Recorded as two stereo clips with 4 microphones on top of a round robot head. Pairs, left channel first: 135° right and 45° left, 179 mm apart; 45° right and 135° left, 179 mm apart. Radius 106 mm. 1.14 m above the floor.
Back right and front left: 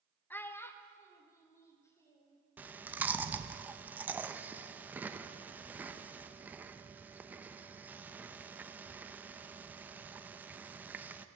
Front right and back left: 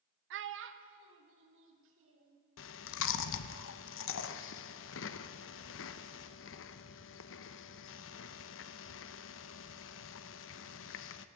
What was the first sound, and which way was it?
A child speaking, 145° left.